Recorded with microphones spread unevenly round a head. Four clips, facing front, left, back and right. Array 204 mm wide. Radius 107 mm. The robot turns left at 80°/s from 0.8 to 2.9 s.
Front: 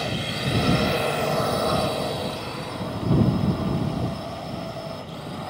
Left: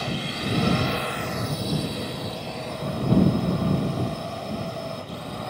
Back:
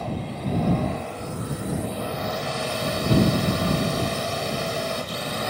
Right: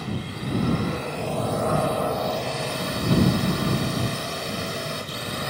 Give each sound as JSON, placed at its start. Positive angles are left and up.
{"t": 0.0, "sound": "a drone", "azimuth_deg": 25}